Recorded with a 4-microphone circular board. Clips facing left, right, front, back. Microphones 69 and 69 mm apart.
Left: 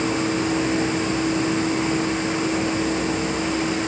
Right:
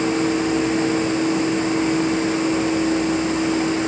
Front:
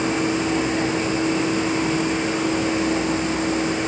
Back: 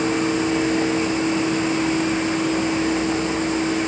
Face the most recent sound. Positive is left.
No sound to turn to.